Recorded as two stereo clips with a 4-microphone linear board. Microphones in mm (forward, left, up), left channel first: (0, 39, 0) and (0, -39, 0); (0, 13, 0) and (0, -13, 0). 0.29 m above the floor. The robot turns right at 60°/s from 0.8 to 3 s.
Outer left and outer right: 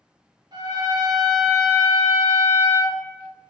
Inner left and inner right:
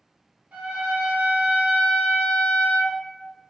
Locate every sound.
0.5 s a trumpet: 90° right, 1.1 m; by 3.0 s 40° left, 1.1 m